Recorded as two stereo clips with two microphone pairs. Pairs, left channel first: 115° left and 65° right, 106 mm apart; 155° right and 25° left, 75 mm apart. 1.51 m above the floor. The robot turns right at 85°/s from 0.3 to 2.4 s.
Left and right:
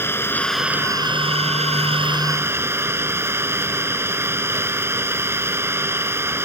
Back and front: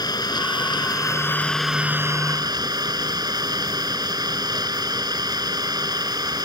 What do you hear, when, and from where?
0.0 s an engine running: 175° right; by 6.5 s straight ahead